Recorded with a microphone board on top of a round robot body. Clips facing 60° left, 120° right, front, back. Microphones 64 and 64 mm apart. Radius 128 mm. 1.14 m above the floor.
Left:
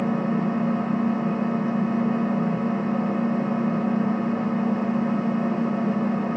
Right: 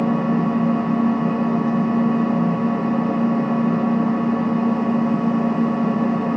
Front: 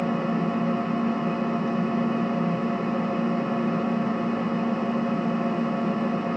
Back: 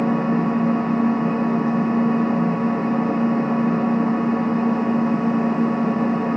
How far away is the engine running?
About 1.5 m.